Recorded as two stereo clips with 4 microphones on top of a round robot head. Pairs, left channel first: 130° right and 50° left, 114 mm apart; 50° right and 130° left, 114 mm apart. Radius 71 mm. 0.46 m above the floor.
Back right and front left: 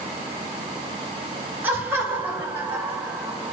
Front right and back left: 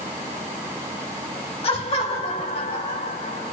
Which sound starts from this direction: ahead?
Laughter, at 1.6 s.